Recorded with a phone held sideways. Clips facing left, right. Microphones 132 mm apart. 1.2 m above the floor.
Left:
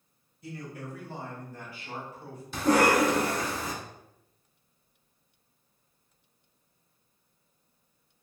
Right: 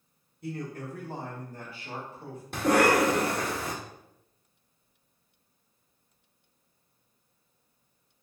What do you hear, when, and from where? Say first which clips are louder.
0.4 s a man speaking: right 4 dB; 55° right (ahead or behind), 1.2 m; by 2.4 s 25° right (ahead or behind), 2 m
2.5 s a cough: even; 55° right (ahead or behind), 1.5 m